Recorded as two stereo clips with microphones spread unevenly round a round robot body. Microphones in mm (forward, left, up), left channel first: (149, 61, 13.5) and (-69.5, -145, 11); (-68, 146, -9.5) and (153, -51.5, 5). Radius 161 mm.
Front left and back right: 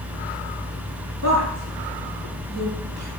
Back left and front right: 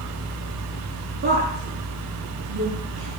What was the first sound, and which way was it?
A woman speaking, 105° right.